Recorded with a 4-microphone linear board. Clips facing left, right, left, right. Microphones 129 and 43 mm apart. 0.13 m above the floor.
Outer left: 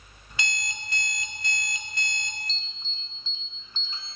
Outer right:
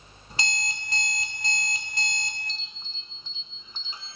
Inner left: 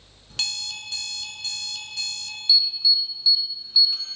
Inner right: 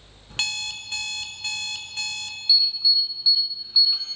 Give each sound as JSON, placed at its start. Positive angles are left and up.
{"t": 0.3, "sound": "an alarm clock", "side_deg": -35, "distance_m": 0.7}
{"t": 2.5, "sound": "an alarm", "side_deg": -15, "distance_m": 0.8}